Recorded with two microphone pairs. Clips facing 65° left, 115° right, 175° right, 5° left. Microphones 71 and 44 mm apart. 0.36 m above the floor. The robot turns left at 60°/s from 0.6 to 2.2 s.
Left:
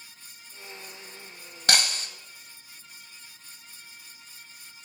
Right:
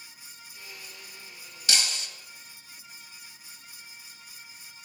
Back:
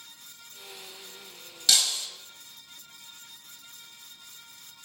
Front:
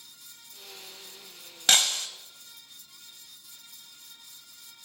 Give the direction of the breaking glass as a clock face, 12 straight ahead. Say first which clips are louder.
Left 5 dB, front 2 dB; 11 o'clock.